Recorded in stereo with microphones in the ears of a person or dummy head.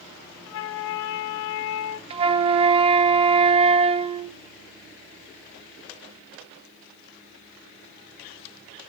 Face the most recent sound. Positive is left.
turn(degrees=-35)  # may be behind; listen again after turning